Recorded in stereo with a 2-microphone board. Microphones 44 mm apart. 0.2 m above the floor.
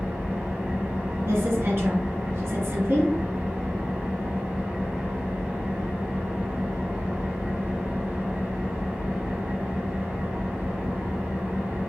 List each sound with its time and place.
0.0 s an engine running: 30° right (ahead or behind), 2 m
1.2 s a woman speaking: 60° right (ahead or behind), 2.5 m